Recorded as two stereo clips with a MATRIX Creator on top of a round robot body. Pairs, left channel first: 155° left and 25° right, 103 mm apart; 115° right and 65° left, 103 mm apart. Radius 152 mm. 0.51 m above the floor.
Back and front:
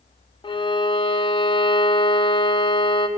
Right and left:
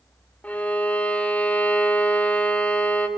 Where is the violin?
175° left, 1.7 m.